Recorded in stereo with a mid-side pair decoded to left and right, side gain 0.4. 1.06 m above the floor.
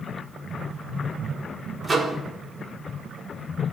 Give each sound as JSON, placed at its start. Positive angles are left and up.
{"t": 1.8, "sound": "a microwave", "azimuth_deg": -35, "distance_m": 4.0}